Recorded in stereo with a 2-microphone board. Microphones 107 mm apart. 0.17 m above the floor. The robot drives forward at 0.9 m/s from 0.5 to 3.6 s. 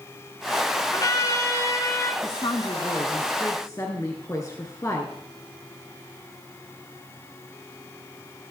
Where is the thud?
No thud in this recording.